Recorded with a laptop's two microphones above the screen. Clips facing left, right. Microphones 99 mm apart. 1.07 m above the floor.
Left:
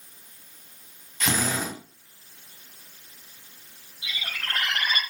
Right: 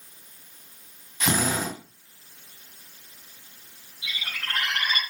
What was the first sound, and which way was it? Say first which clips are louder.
A drill: right 2 dB; 10° right (ahead or behind).